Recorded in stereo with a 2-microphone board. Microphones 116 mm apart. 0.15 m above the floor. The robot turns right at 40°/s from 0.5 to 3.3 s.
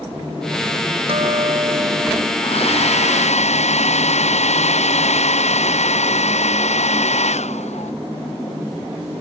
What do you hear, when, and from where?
1.1 s a guitar: 60° right; by 2.3 s 10° right
2.4 s a hair dryer: 60° left; by 7.9 s 95° left